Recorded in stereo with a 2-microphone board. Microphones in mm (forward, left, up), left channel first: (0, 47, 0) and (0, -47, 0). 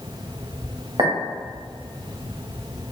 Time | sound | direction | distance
1.0 | a clink | 55° right (ahead or behind) | 1.4 m